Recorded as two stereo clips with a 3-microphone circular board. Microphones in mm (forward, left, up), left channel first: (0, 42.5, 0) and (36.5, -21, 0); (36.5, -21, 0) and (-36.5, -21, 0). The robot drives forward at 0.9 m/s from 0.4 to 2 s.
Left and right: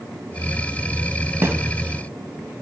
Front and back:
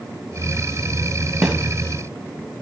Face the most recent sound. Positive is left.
turn(degrees=-120)